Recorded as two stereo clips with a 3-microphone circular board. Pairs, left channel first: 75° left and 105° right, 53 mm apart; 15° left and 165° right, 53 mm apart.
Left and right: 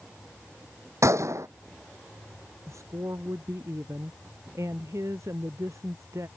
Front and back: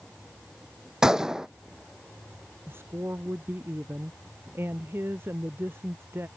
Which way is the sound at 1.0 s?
90° right.